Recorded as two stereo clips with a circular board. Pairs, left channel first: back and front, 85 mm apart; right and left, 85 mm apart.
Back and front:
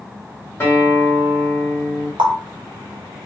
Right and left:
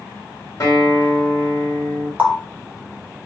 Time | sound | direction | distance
0.6 | a guitar | 120° right | 1.7 m
2.2 | a running tap | 20° left | 0.9 m